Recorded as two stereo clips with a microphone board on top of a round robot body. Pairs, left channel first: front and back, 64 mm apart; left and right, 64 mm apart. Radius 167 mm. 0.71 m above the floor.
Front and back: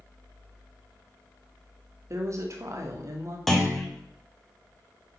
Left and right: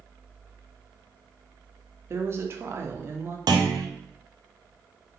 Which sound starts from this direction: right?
A clunk, at 3.5 s.